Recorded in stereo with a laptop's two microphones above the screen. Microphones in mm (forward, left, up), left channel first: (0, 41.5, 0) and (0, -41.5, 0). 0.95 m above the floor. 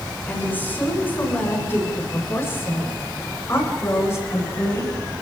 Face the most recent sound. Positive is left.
turn(degrees=40)  # may be behind; listen again after turning